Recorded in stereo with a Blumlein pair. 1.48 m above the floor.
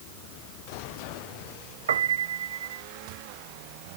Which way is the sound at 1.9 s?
65° right.